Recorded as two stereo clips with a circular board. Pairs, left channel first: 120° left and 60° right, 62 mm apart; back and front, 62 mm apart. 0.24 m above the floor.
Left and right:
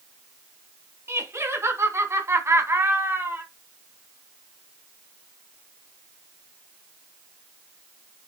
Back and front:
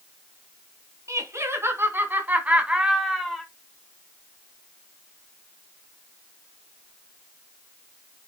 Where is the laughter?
25° right, 2.5 m; by 3.5 s 100° right, 1.7 m.